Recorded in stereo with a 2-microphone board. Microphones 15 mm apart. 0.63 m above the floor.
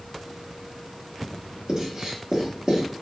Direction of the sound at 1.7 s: 50° right (ahead or behind).